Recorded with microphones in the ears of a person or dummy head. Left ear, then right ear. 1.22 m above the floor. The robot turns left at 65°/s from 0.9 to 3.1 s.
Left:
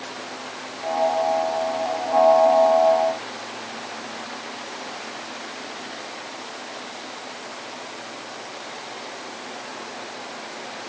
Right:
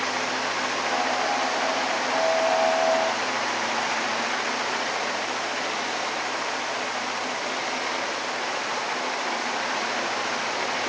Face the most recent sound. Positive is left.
No sound to turn to.